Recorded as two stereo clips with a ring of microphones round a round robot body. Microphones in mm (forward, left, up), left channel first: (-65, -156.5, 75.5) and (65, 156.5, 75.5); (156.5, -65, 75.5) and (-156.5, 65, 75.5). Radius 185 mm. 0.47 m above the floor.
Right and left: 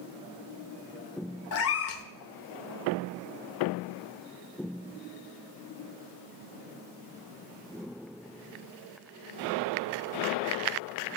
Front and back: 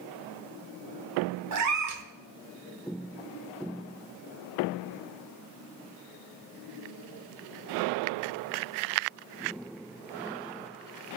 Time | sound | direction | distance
1.5 | a cat meowing | 160° right | 0.9 m